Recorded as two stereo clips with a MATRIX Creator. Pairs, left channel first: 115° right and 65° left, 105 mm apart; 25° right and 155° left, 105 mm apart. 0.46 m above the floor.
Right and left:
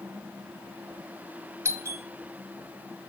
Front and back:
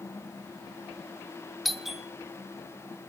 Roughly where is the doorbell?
Left.